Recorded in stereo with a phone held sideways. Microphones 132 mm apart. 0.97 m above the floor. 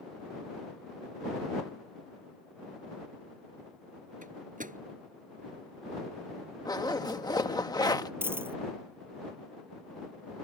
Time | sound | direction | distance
4.2 | a microwave | 85° right | ?
6.7 | a zipper | 30° left (ahead or behind) | ?
8.2 | a dropped coin | 15° right (ahead or behind) | ?